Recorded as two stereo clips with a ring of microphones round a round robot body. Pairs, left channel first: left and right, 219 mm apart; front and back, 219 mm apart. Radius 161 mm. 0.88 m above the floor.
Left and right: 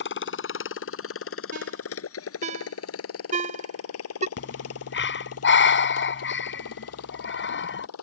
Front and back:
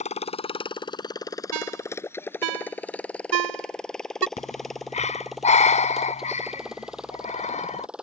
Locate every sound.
0.0 s a motorcycle: 60° left; by 8.0 s 95° left
1.5 s a ringtone: 160° right
4.4 s breathing: 60° left